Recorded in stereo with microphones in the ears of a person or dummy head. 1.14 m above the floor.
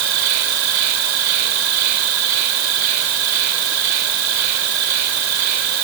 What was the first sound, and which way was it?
An insect, 80° right.